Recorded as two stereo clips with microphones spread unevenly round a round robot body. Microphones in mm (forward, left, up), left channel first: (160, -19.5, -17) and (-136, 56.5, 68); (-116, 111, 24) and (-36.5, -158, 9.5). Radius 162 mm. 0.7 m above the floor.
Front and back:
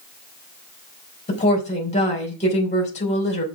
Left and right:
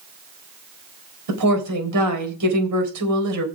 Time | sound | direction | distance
1.3 | a woman speaking | 80° right | 4 m